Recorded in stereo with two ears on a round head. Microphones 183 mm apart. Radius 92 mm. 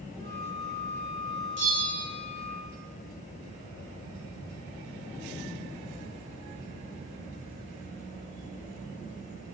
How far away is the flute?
About 7.5 m.